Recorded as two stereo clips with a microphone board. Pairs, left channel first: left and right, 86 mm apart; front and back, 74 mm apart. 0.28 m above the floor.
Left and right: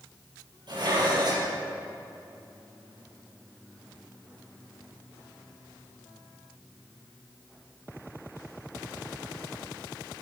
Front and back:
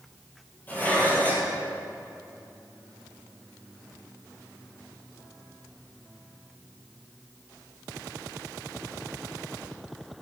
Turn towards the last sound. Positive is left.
turn(degrees=-65)